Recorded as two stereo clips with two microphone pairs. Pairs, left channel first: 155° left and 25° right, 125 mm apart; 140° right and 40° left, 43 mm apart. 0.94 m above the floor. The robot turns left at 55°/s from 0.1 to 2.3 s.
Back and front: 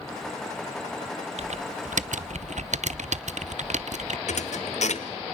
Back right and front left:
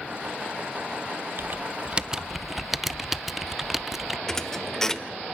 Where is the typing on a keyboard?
5° left, 0.6 m; by 4.2 s 45° right, 0.6 m.